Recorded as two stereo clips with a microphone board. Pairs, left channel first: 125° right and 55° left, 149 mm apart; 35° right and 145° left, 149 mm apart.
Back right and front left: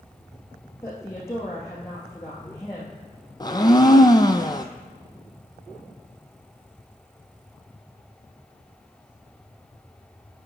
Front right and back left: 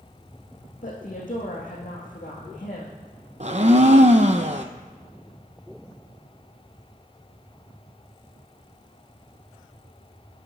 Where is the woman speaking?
55° right, 3.5 m.